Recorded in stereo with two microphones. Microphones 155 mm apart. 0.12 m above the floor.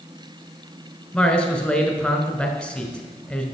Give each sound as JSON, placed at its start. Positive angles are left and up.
{"t": 1.1, "sound": "a man speaking", "side_deg": 5, "distance_m": 1.3}